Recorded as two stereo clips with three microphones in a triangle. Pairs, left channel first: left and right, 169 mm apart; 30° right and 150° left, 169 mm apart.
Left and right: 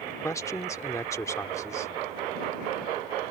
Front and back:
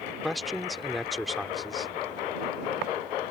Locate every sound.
0.2 s a man speaking: 60° left